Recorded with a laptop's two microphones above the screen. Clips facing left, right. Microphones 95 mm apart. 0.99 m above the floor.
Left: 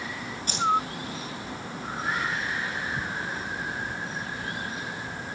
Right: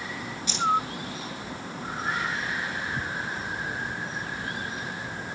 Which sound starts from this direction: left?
Keys jangling, at 0.5 s.